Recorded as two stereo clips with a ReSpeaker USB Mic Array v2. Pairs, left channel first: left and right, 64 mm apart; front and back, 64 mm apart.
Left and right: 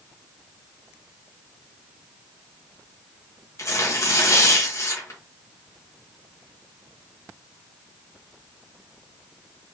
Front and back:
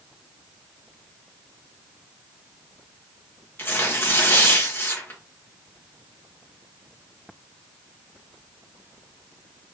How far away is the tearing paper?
About 1.7 m.